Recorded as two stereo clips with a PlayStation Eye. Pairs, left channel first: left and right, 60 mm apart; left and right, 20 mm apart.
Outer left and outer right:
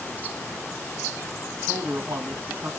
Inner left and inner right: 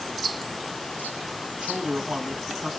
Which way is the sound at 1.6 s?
55° right (ahead or behind).